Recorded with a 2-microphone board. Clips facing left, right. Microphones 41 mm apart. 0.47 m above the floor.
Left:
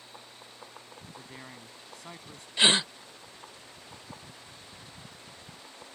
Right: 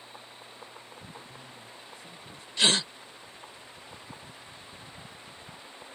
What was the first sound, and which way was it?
A man speaking, 70° left (ahead or behind).